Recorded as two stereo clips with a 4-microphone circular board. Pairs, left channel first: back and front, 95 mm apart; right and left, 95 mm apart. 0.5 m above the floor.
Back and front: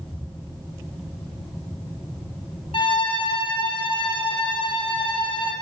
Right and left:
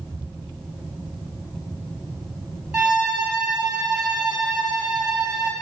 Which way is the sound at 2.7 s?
175° left.